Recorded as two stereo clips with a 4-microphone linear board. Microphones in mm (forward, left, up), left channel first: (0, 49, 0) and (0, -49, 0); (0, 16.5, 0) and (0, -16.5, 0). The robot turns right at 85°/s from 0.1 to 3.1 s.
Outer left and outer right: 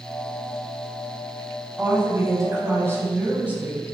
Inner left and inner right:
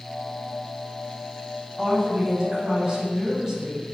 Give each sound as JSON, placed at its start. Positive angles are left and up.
{"t": 1.8, "sound": "a woman speaking", "azimuth_deg": -145, "distance_m": 1.4}